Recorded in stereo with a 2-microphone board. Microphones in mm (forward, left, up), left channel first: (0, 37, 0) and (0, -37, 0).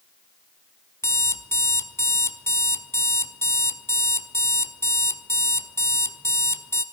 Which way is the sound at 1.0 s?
40° left (ahead or behind).